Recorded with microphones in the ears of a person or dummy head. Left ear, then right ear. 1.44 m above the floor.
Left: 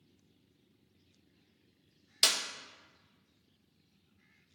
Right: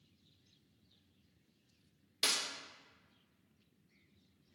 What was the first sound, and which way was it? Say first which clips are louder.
A clap: left 6 dB; 25° left (ahead or behind).